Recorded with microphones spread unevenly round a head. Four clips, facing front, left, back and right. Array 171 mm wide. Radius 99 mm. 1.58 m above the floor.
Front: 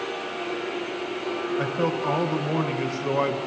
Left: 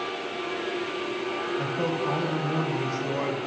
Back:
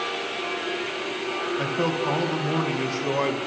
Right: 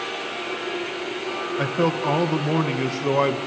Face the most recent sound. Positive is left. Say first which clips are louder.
# right 8 dB, even
turn(degrees=-105)